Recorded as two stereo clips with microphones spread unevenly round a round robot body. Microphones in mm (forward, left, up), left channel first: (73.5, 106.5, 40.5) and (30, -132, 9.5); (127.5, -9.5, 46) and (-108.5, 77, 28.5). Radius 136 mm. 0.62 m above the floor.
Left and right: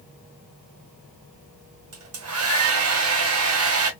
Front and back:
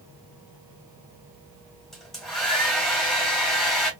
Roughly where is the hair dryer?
Right.